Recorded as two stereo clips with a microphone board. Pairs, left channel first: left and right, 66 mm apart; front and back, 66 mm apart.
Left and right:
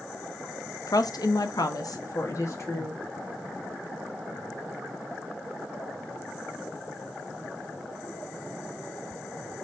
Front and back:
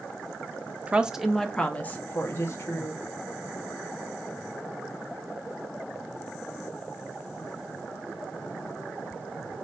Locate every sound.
0.9 s a woman speaking: 115° left, 0.6 m; by 3.0 s 45° left, 1.3 m